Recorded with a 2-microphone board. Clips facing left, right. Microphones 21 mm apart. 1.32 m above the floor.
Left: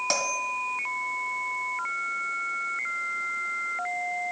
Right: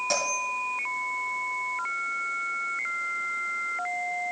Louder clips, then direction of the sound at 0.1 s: Even; 25° left (ahead or behind).